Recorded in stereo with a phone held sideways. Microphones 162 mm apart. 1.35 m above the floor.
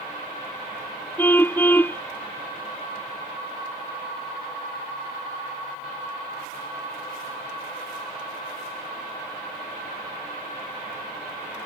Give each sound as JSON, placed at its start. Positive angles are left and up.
{"t": 1.2, "sound": "a car horn", "side_deg": 10}